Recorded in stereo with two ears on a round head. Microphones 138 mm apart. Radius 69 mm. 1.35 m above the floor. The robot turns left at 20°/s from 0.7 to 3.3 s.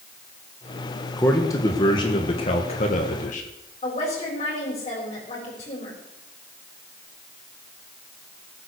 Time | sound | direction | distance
1.2 | a man speaking | 165° left | 1.5 m
3.8 | a woman speaking | 40° left (ahead or behind) | 4.5 m